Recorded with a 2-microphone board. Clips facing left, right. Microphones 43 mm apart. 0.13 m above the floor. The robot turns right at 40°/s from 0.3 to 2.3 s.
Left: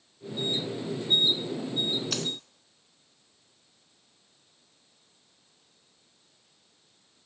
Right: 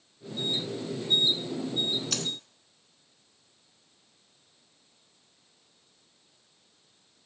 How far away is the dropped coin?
About 0.7 m.